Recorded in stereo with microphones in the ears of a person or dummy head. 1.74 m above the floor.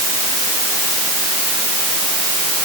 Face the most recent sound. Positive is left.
No sound to turn to.